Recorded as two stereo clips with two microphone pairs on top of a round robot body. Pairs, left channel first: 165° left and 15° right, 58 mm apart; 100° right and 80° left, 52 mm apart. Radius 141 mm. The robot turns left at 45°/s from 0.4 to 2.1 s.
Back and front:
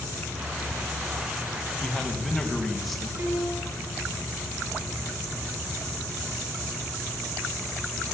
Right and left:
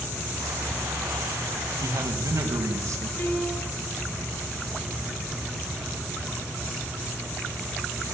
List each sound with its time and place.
1.8 s a man speaking: 90° left, 4 m; by 3.1 s 75° left, 4 m
3.2 s a piano: 55° right, 5 m